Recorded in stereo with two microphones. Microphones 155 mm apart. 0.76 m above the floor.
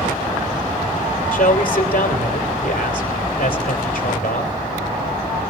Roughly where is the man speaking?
Left.